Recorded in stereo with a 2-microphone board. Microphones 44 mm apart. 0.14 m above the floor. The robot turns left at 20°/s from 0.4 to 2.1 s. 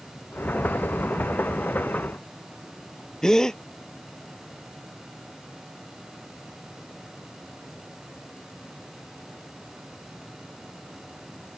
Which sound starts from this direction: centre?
A gasp, at 3.2 s.